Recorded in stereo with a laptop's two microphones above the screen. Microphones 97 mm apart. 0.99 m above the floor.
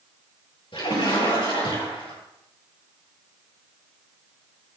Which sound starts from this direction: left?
A splash, at 0.7 s.